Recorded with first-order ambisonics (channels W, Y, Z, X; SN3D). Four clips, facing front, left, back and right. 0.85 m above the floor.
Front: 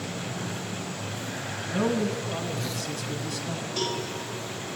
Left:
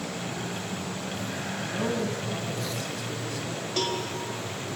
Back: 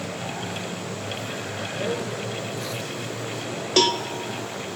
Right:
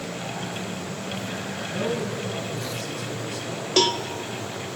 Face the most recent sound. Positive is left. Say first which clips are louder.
# right 8 dB, back 11 dB
turn(degrees=-145)